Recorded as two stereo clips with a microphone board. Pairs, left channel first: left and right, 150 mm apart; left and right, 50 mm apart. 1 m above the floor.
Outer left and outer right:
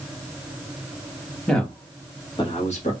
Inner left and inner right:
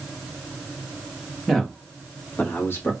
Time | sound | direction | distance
1.5 | a man speaking | 5° left (ahead or behind) | 1.6 m